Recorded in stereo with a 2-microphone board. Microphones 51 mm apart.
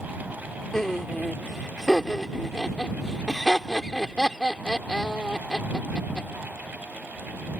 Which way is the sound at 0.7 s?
10° left (ahead or behind).